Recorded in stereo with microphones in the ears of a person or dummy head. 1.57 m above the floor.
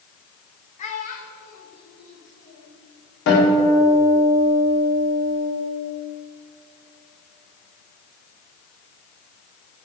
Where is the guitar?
70° left (ahead or behind), 4.5 m.